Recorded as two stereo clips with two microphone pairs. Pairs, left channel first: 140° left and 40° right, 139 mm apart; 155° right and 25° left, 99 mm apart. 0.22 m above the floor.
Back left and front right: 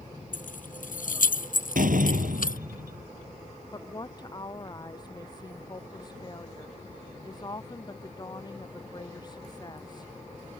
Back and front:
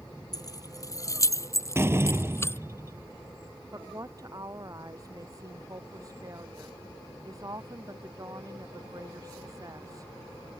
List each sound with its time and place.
0.3 s keys jangling: 155° left; by 2.6 s 140° left
1.8 s a door slam: 35° right
3.7 s a woman speaking: 80° left